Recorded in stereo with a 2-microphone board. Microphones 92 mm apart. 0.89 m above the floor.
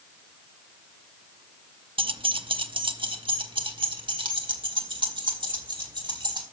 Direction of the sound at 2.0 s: 75° right (ahead or behind).